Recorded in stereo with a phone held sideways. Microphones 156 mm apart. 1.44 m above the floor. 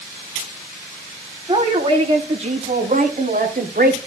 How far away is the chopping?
I don't hear chopping.